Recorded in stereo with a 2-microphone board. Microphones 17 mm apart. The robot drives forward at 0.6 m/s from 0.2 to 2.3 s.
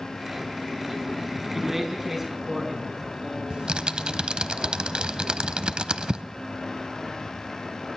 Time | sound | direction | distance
1.5 | a man speaking | 20° right (ahead or behind) | 5 m
3.5 | typing on a keyboard | 80° right | 0.6 m